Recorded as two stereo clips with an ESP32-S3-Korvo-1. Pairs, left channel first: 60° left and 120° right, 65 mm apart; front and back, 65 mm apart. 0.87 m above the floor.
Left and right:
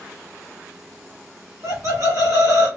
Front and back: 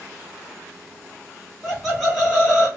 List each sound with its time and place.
1.6 s laughter: 95° right, 0.8 m